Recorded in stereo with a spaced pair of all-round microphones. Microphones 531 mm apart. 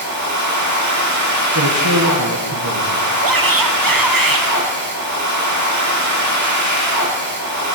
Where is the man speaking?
35° right (ahead or behind), 1.3 m.